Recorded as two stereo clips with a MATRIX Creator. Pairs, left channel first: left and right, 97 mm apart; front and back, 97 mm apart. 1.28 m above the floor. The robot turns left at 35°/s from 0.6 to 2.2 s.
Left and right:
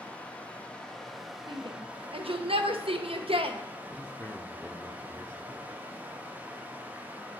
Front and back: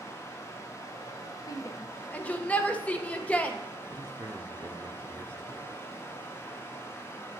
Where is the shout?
50° right, 0.8 m; by 3.6 s 75° right, 0.8 m.